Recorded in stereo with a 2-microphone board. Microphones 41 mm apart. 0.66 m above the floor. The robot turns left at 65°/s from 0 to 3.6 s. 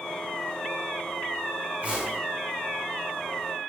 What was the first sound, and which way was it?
A whoosh, 35° right (ahead or behind).